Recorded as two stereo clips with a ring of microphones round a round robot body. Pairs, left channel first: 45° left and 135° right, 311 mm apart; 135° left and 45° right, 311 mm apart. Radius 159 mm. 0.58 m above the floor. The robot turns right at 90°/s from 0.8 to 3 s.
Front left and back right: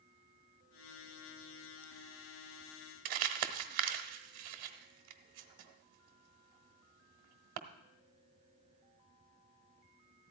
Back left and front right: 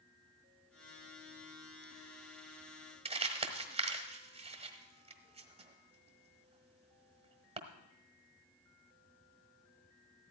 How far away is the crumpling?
About 1.0 m.